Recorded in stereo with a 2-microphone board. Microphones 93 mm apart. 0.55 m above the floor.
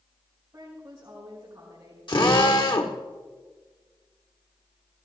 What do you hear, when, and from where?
0.5 s a woman speaking: 40° right (ahead or behind), 5 m
2.1 s a drill: 55° left (ahead or behind), 1.4 m